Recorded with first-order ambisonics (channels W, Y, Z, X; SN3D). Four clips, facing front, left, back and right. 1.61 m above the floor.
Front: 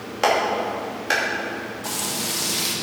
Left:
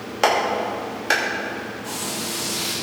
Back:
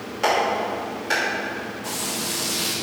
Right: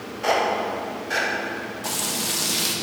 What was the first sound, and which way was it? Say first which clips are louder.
A clap: left 2 dB, front 1 dB; 70° left.